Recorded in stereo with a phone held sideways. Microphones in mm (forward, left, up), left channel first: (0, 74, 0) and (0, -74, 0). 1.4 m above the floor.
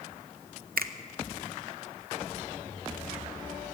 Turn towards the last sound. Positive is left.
turn(degrees=-80)